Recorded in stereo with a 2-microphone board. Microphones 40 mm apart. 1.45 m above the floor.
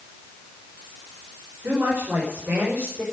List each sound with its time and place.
1.6 s a woman speaking: 60° right (ahead or behind), 5.5 m; by 3.0 s 50° right (ahead or behind), 6.5 m